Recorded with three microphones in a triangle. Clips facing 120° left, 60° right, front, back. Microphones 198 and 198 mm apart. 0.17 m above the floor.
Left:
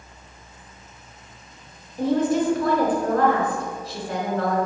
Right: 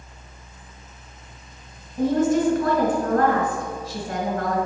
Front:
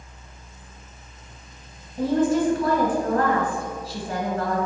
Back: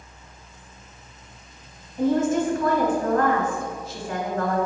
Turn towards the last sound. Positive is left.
turn(degrees=-45)